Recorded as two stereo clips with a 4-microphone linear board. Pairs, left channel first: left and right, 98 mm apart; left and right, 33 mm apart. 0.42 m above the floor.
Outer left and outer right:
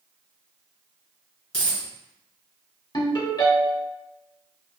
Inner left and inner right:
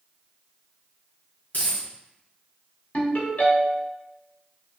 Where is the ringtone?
50° left (ahead or behind), 1.2 m.